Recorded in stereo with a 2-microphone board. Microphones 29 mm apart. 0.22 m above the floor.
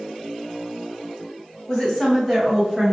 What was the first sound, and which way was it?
A woman speaking, 10° left (ahead or behind).